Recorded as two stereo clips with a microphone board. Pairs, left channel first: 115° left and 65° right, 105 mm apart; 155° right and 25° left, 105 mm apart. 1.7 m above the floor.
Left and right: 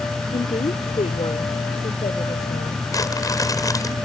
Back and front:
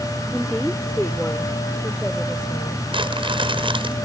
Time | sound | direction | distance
0.3 | a woman speaking | 115° left | ?
2.9 | crumpling | 55° left | ?